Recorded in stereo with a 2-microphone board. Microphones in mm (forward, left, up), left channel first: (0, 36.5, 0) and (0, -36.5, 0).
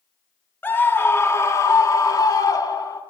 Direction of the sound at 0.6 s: 25° left (ahead or behind).